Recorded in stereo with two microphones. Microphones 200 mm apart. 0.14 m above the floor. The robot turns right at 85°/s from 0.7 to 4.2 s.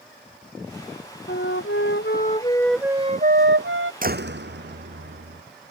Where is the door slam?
45° right (ahead or behind); by 5.4 s 60° right (ahead or behind).